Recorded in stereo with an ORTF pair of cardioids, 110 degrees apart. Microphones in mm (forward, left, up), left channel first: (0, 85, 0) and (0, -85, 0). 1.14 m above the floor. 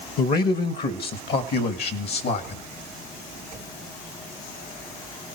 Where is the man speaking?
65° left, 1.3 m; by 2.6 s 75° left, 2.5 m.